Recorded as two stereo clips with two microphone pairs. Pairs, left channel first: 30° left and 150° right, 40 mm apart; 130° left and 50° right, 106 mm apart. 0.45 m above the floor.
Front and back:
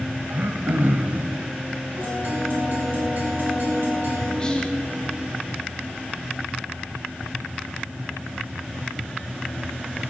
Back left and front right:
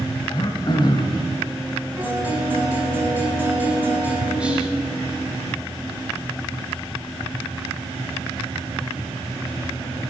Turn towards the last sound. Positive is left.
turn(degrees=15)